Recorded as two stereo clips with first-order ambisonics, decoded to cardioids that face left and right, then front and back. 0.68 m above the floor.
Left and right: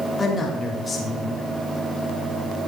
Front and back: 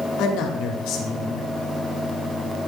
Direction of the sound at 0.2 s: 10° left.